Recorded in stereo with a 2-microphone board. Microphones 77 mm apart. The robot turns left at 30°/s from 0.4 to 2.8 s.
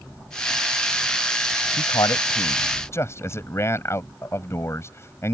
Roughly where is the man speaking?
Ahead left.